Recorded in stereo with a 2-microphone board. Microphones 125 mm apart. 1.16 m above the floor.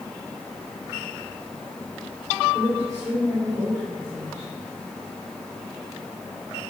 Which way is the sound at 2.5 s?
30° right (ahead or behind).